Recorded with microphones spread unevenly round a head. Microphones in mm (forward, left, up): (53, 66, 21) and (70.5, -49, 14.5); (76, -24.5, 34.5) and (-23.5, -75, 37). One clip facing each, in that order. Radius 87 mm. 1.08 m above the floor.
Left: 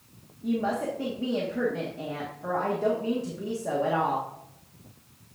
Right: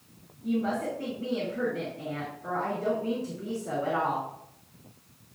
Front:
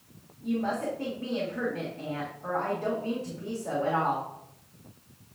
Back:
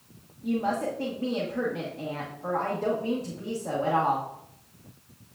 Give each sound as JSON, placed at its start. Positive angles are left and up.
{"t": 0.4, "sound": "a woman speaking", "azimuth_deg": 130, "distance_m": 1.4}